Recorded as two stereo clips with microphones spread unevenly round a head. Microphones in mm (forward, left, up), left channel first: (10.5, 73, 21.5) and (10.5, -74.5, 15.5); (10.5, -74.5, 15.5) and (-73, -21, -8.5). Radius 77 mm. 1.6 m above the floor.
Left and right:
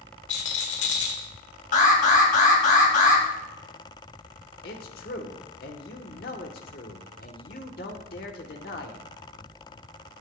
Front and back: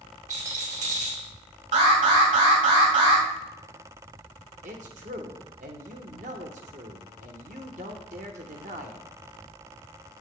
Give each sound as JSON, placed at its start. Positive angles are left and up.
{"t": 0.3, "sound": "a rattle", "azimuth_deg": 105, "distance_m": 2.0}
{"t": 1.7, "sound": "an alarm", "azimuth_deg": 130, "distance_m": 2.5}
{"t": 4.6, "sound": "a man speaking", "azimuth_deg": 120, "distance_m": 1.2}